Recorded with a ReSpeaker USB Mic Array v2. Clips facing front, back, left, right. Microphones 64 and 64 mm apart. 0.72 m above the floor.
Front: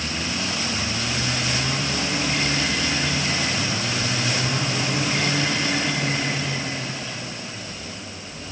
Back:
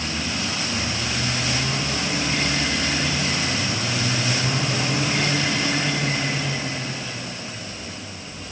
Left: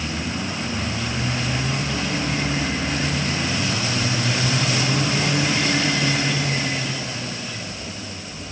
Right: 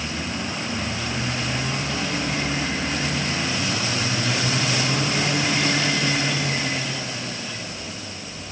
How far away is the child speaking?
No child speaking in this recording.